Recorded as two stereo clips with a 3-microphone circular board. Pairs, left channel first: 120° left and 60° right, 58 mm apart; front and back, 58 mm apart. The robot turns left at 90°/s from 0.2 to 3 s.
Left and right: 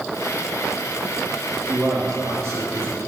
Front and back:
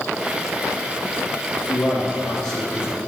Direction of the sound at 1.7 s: 10° right.